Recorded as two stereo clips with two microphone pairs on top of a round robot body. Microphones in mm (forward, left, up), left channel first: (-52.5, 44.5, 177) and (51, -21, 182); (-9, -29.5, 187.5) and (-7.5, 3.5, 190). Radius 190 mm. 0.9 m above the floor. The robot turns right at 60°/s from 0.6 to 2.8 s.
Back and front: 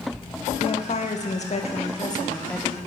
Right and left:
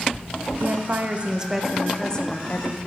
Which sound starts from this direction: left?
A woman speaking, at 0.6 s.